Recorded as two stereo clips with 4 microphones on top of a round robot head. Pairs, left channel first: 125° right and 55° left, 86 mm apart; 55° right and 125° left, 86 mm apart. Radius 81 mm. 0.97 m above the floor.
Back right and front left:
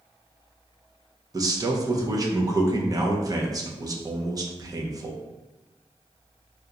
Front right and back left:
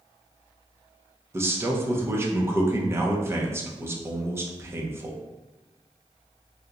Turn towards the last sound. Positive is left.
turn(degrees=75)